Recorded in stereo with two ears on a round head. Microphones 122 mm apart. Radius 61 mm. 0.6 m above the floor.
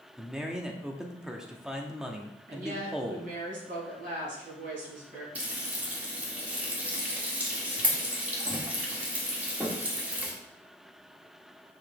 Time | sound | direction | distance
0.2 | a man speaking | 5° right (ahead or behind) | 0.9 m
2.5 | a woman speaking | 70° right (ahead or behind) | 4.5 m
5.3 | frying | 10° right (ahead or behind) | 1.6 m